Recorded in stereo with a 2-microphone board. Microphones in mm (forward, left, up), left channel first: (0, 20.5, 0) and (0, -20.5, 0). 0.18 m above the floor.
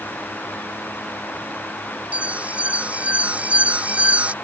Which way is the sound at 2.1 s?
35° right (ahead or behind).